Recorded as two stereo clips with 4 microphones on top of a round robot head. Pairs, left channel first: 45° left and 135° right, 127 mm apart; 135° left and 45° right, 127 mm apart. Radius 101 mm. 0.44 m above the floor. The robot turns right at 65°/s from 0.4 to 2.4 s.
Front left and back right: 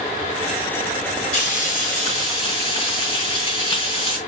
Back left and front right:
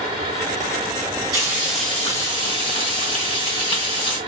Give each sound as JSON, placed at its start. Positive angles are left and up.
{"t": 1.3, "sound": "frying", "azimuth_deg": 15, "distance_m": 3.0}